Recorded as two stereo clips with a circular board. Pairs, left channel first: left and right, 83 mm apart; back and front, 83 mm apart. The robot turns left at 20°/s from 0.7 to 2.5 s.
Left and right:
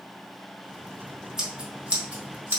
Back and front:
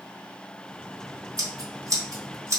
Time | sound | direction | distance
1.4 | scissors | 10° right | 1.6 m